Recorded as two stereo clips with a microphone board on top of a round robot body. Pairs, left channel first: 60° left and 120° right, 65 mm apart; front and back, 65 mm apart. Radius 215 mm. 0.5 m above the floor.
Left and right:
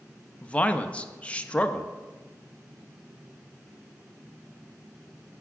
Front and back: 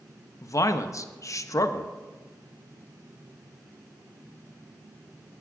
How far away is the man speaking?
About 0.9 m.